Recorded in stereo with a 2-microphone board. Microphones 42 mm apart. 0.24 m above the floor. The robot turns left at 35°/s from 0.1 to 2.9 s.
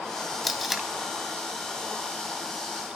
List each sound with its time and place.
0.4 s tape being pulled: centre (ahead or behind), 1.0 m; by 0.9 s 10° right (ahead or behind), 1.0 m